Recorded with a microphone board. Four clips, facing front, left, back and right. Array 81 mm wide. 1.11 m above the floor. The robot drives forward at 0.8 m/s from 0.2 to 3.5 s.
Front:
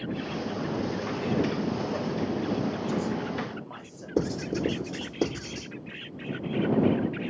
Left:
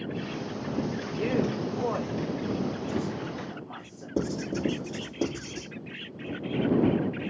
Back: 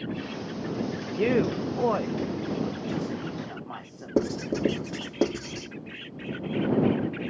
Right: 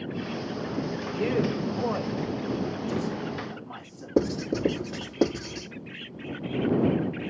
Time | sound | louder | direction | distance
1.2 | a man speaking | right 1 dB, back 5 dB | 175° right | 0.5 m
4.2 | writing | right 4 dB, back 2 dB | 155° right | 3 m